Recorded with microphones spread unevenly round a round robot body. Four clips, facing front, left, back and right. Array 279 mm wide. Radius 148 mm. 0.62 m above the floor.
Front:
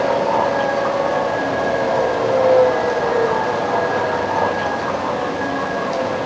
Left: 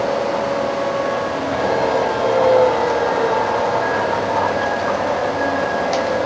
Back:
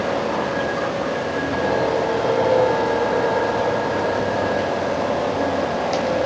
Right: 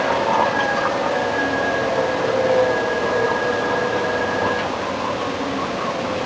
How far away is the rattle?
I don't hear a rattle.